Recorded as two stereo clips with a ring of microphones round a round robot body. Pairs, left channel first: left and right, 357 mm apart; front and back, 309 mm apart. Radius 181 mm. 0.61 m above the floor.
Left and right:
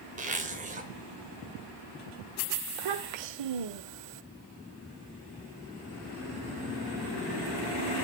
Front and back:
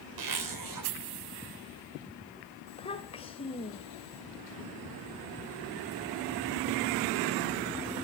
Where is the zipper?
160° right, 3 m.